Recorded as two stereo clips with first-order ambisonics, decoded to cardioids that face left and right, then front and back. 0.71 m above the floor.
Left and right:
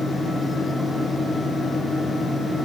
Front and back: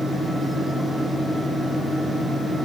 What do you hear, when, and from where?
Only background noise.